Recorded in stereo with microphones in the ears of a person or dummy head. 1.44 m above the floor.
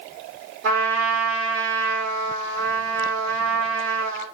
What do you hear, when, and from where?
0.6 s a trumpet: 70° right (ahead or behind), 1.9 m